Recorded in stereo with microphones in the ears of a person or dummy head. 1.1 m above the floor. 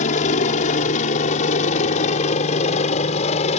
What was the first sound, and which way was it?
A helicopter, 45° left (ahead or behind).